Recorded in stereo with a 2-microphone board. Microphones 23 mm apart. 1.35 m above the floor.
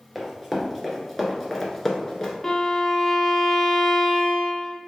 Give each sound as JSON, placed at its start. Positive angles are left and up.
{"t": 0.1, "sound": "running footsteps", "side_deg": -5, "distance_m": 1.5}
{"t": 2.4, "sound": "a violin", "side_deg": 15, "distance_m": 0.6}